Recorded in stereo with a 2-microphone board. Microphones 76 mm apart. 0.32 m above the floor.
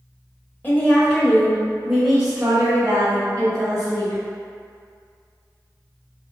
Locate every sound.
0.6 s a woman speaking: 25° left (ahead or behind), 1.2 m; by 4.2 s 45° right (ahead or behind), 2.0 m